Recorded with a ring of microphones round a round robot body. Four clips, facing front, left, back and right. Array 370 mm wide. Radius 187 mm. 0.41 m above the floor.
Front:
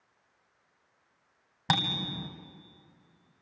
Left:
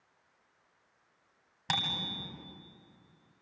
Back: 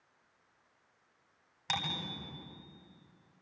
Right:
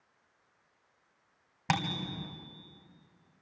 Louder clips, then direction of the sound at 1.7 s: Right 4 dB, front 7 dB; 30° right.